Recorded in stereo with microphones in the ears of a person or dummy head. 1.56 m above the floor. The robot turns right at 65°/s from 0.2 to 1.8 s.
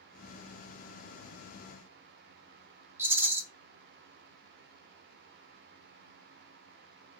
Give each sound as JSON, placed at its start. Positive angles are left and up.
{"t": 3.0, "sound": "a rattle", "side_deg": -10, "distance_m": 0.9}